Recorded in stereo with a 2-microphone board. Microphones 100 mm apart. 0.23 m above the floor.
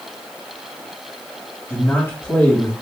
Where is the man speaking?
25° left (ahead or behind), 1.6 m.